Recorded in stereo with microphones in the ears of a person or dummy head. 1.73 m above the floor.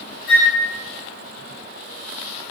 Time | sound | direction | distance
0.3 | a flute | 10° left (ahead or behind) | 2.0 m